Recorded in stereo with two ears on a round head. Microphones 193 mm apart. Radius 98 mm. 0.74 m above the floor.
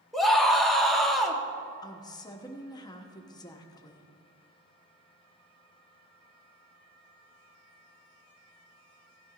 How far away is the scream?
About 1.2 m.